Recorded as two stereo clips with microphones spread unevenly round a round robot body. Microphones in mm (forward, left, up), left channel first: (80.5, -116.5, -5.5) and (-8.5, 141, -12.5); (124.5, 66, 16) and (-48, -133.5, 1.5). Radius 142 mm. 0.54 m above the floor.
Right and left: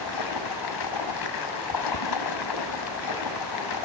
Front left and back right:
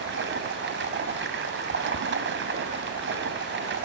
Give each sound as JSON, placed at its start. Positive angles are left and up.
{"t": 0.0, "sound": "running water", "azimuth_deg": -85, "distance_m": 3.0}